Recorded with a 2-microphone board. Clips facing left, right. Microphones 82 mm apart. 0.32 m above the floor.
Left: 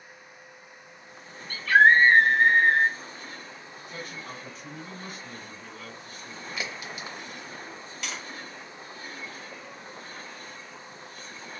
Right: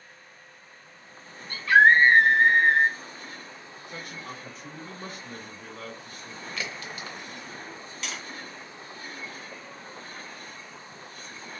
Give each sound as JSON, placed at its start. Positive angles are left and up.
{"t": 1.5, "sound": "a scream", "side_deg": -20, "distance_m": 1.0}
{"t": 3.9, "sound": "a man speaking", "side_deg": -25, "distance_m": 1.3}
{"t": 6.6, "sound": "a crack", "side_deg": 20, "distance_m": 0.8}
{"t": 8.0, "sound": "tapping", "side_deg": 5, "distance_m": 2.5}